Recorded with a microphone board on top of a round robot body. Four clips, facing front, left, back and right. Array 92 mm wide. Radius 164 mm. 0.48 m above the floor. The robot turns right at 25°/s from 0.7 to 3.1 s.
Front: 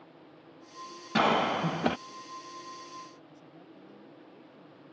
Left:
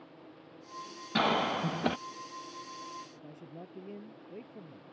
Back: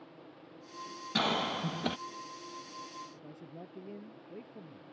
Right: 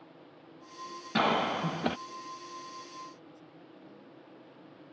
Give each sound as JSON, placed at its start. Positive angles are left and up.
{"t": 1.1, "sound": "a cough", "azimuth_deg": -15}
{"t": 3.1, "sound": "a man speaking", "azimuth_deg": 130}